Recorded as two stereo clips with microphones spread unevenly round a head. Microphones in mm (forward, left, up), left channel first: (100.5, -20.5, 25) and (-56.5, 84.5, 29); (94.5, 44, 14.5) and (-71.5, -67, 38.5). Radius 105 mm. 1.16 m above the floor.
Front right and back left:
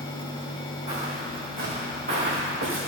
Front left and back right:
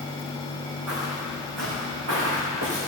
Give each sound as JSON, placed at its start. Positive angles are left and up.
{"t": 0.9, "sound": "footsteps", "azimuth_deg": -155, "distance_m": 4.0}